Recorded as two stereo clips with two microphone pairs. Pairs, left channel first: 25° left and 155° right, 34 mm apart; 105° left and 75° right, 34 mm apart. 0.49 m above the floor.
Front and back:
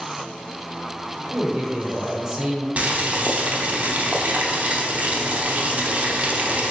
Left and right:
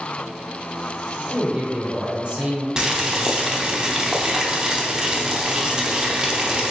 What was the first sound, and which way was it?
A man speaking, 95° right.